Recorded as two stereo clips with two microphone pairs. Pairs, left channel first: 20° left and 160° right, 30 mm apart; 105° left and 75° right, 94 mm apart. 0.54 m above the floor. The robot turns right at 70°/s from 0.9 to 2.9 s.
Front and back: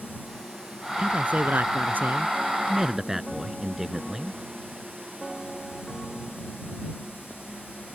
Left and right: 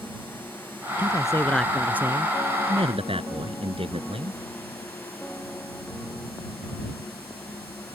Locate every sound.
1.0 s a man speaking: 145° left; by 4.4 s 80° right